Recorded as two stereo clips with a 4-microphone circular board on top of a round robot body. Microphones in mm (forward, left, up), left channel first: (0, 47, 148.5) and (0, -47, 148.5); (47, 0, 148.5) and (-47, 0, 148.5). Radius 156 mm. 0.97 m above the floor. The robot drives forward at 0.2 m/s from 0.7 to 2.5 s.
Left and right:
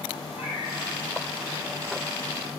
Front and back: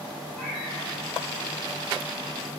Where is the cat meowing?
80° left, 0.9 m.